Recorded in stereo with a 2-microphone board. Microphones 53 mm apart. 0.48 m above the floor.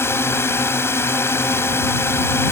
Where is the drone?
50° left (ahead or behind).